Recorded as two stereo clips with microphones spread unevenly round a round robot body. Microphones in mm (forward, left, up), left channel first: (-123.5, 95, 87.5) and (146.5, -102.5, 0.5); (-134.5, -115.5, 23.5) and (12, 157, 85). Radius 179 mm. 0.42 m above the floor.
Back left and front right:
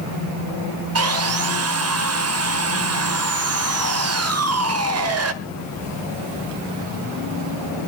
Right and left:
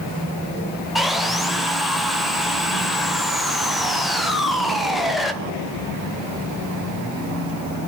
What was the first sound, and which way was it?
Sawing, 35° right.